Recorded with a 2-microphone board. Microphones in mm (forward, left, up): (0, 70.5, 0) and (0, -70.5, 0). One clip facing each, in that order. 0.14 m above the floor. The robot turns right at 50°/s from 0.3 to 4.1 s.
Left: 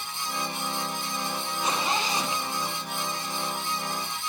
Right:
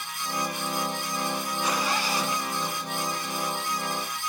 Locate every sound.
1.6 s a zipper: 25° left (ahead or behind), 1.1 m; by 3.4 s 5° right (ahead or behind), 1.1 m